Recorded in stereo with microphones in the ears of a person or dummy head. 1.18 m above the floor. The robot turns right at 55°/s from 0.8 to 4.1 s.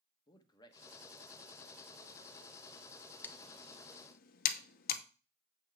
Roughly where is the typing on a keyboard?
Centre.